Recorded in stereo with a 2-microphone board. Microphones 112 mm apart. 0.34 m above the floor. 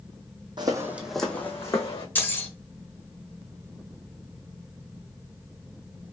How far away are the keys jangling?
About 0.9 m.